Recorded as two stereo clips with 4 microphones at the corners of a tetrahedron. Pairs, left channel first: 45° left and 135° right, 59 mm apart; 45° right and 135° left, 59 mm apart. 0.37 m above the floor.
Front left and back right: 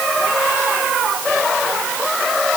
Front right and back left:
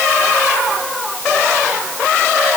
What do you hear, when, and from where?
Only background noise.